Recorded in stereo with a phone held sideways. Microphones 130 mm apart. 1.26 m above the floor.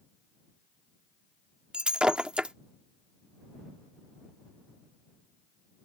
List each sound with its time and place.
1.7 s breaking glass: 5° right (ahead or behind)